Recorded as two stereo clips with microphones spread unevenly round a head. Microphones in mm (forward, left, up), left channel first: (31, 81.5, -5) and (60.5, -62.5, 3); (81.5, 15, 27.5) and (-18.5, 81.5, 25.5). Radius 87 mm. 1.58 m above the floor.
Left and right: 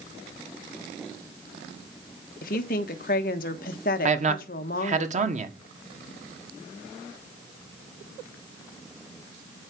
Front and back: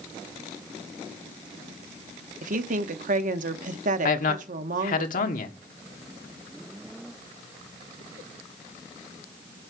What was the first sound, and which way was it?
A woman speaking, 145° left.